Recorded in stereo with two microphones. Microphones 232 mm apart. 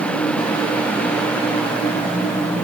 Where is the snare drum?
No snare drum in this recording.